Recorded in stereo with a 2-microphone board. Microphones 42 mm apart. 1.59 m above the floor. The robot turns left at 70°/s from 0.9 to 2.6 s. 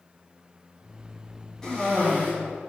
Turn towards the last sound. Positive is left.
turn(degrees=100)